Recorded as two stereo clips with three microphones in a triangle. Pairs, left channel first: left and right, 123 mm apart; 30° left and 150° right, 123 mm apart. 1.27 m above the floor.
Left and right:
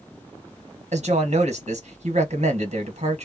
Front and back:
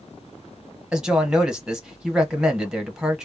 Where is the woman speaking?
65° right, 1.2 m.